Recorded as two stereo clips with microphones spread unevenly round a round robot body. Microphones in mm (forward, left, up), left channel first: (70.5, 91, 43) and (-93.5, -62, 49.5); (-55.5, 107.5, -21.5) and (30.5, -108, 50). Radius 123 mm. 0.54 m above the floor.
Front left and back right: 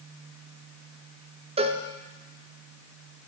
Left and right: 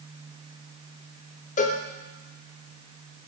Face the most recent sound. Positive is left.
turn(degrees=160)